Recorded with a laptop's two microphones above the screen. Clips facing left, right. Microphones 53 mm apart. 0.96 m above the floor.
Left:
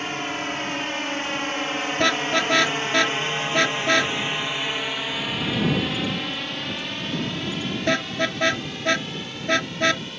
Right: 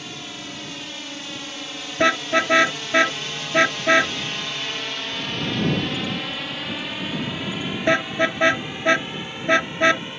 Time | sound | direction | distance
0.0 | a drone | 45° left (ahead or behind) | ?
2.0 | a car horn | 20° right (ahead or behind) | ?